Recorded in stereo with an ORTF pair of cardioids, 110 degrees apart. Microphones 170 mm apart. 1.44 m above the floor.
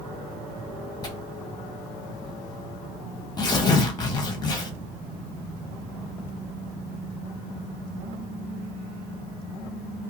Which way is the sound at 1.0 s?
30° left.